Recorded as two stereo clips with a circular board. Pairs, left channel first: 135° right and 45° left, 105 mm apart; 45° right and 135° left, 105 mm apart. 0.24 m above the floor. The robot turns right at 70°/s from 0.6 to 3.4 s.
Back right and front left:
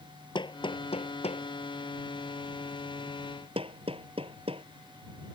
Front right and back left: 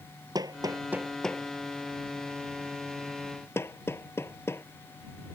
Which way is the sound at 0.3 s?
175° right.